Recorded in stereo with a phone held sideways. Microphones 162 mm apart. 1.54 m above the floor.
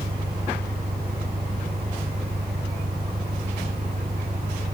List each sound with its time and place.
0.0 s an engine running: 75° right (ahead or behind)